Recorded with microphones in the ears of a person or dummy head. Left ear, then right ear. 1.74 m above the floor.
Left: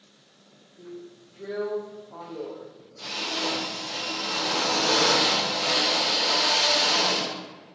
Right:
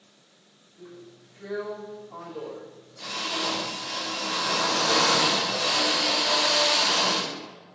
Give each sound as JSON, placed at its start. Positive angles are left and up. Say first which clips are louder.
{"t": 0.8, "sound": "a drill", "louder": "left 4 dB", "side_deg": -30, "distance_m": 2.5}